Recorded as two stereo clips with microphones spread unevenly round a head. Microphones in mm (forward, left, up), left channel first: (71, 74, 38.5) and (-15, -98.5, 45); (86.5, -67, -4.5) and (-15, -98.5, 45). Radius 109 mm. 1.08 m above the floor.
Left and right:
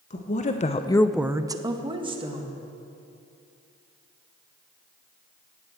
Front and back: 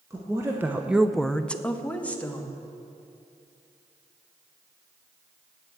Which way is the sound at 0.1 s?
115° left.